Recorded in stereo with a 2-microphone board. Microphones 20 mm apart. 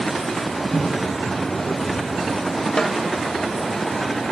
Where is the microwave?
40° right (ahead or behind), 5 m.